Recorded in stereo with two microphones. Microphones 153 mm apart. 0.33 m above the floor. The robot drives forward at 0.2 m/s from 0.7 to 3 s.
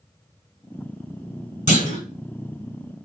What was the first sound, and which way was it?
A clunk, 50° left (ahead or behind).